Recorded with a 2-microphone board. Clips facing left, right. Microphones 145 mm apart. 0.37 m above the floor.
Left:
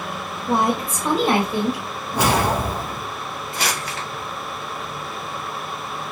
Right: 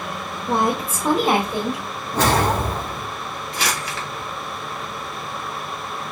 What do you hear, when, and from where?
0.5 s a woman speaking: 5° left (ahead or behind), 1.0 m; by 1.9 s 25° right (ahead or behind), 1.5 m
2.1 s a whoosh: 10° left (ahead or behind), 0.7 m
3.5 s crumpling: 45° left (ahead or behind), 1.1 m